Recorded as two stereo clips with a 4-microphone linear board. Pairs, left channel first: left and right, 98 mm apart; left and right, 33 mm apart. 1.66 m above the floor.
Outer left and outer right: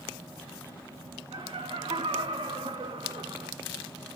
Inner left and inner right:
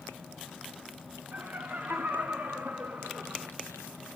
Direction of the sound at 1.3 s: 80° right.